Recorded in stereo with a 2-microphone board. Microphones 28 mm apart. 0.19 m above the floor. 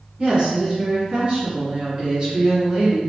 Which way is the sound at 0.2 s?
40° right (ahead or behind).